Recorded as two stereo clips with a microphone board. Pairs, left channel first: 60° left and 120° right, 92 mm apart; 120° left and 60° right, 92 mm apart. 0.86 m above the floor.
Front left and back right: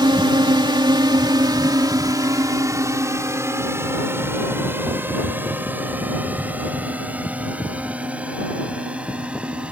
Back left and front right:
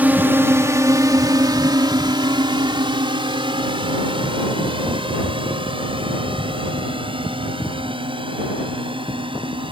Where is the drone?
125° right; by 9.7 s 40° right.